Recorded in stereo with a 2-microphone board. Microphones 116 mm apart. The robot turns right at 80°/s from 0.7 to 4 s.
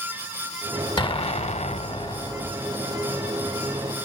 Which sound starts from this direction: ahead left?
An explosion, at 1.0 s.